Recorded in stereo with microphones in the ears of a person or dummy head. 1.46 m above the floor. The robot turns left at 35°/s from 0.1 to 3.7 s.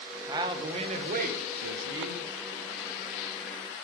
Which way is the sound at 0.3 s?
20° right.